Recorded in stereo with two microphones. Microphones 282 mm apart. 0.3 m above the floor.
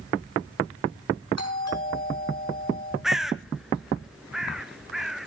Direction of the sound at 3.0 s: Centre (ahead or behind).